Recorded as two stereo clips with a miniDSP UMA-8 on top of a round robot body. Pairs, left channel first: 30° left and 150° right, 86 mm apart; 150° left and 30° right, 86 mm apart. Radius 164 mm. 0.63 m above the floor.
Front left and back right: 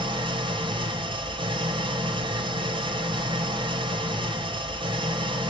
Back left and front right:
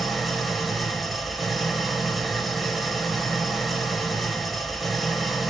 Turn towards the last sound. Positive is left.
turn(degrees=-120)